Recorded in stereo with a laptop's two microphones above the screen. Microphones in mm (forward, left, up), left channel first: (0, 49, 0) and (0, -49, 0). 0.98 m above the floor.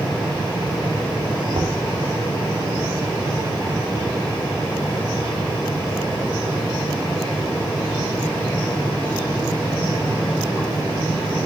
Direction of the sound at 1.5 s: 60° right (ahead or behind).